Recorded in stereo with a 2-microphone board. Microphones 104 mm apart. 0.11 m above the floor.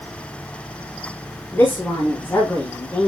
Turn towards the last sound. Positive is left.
turn(degrees=25)  # may be behind; listen again after turning